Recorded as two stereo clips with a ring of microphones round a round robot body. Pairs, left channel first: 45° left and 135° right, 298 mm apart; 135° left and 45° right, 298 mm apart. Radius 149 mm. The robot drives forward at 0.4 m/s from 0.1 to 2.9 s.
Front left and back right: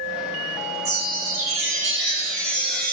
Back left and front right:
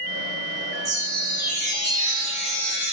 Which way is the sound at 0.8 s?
90° right.